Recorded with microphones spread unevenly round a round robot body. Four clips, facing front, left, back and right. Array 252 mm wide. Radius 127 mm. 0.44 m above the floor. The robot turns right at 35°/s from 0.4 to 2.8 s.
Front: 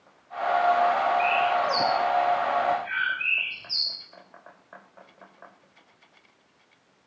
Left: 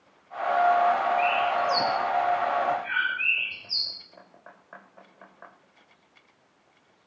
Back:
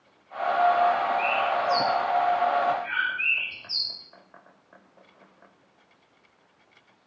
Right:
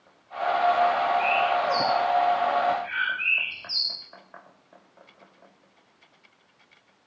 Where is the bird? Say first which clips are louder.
Right 1 dB, front 2 dB; 95° left, 9 m; by 3.9 s 155° left, 9 m.